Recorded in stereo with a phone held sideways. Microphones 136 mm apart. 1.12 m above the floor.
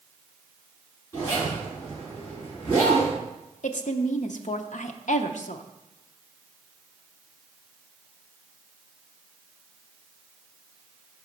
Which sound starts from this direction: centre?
A zipper, at 1.1 s.